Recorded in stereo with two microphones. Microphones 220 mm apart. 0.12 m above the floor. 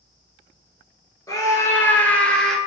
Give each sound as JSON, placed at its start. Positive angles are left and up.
{"t": 1.3, "sound": "a scream", "side_deg": 15, "distance_m": 2.5}